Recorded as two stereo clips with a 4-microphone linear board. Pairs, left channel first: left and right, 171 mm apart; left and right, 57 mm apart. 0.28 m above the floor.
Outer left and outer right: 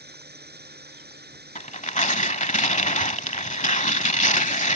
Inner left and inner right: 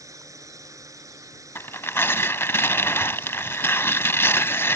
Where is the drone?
70° right (ahead or behind).